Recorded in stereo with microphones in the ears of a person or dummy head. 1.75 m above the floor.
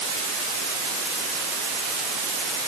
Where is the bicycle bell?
No bicycle bell in this recording.